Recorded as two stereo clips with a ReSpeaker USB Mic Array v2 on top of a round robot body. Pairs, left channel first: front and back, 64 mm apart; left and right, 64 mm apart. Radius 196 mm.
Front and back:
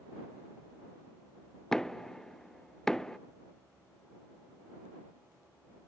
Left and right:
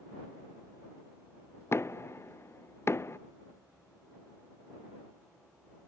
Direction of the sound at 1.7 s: 80° left.